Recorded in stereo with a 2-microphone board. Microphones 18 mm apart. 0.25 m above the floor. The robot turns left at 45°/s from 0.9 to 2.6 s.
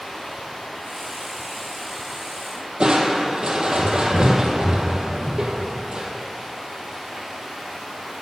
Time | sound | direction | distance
0.0 | running water | 65° left | 2.5 m
2.8 | crushing | 45° right (ahead or behind) | 1.2 m